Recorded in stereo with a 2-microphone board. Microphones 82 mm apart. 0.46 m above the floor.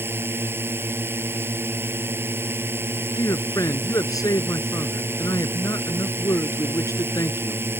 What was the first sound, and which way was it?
A drone, 25° right (ahead or behind).